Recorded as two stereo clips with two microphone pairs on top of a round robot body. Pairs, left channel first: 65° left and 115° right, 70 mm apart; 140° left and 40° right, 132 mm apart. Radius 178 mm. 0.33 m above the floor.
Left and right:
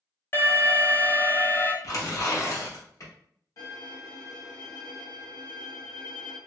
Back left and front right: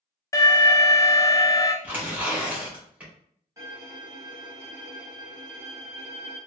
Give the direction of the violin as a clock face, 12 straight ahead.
11 o'clock.